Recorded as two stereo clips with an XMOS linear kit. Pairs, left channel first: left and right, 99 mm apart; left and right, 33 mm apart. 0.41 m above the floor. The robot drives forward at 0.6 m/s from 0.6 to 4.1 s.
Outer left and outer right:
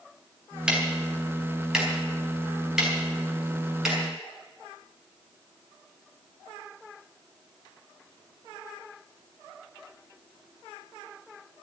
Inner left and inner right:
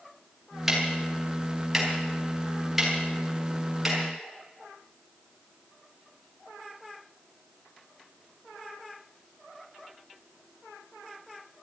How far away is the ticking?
About 3 m.